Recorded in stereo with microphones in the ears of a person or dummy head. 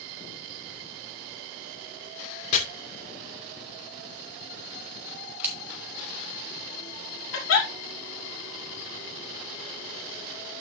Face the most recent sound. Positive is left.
turn(degrees=70)  # may be behind; listen again after turning